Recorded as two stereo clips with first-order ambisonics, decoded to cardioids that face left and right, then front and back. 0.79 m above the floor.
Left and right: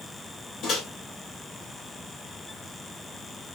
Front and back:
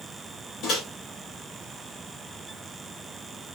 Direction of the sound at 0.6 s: 40° left.